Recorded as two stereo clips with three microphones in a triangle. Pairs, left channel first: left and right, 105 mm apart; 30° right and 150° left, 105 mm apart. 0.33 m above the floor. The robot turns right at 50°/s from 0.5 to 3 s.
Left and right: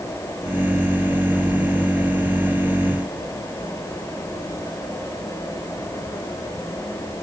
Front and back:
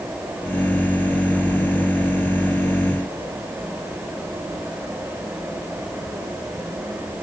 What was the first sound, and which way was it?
Only background noise.